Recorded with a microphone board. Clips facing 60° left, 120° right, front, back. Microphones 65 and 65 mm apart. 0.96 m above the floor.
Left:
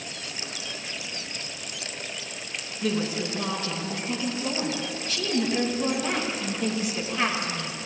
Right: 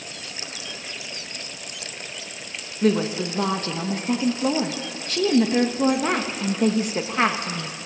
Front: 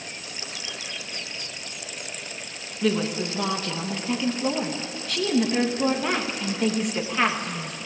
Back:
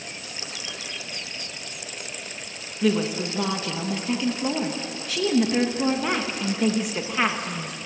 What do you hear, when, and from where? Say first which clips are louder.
2.8 s a woman speaking: right 6 dB, back 1 dB; 95° right, 1.3 m